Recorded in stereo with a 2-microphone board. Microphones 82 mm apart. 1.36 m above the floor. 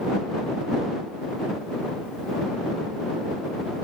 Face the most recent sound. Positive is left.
No sound to turn to.